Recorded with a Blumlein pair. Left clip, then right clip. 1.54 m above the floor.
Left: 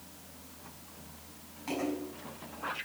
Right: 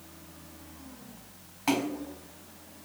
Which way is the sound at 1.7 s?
35° right.